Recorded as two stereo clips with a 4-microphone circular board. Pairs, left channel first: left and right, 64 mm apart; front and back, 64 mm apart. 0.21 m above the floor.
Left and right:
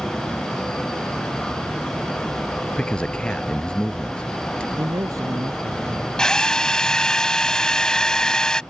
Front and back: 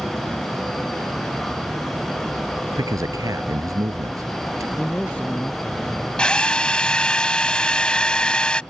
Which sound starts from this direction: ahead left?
A drill, at 6.2 s.